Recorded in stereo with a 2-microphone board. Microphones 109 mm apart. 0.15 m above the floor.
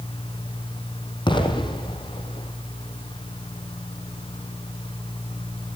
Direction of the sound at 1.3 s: 50° left (ahead or behind).